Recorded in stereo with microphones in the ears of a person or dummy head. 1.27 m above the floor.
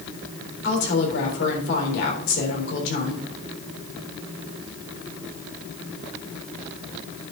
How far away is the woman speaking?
About 3.5 m.